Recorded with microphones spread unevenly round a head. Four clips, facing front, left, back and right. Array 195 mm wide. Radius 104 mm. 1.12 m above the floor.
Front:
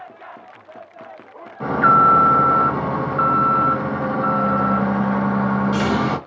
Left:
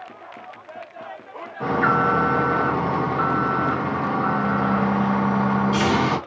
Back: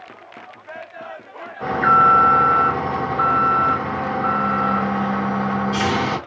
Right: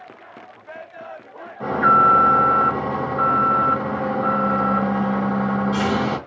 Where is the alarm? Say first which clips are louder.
Right 4 dB, front 1 dB; 10° left, 1.1 m.